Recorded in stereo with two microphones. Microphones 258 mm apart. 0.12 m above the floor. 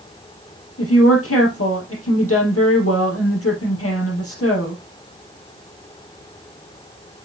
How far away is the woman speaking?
About 4 m.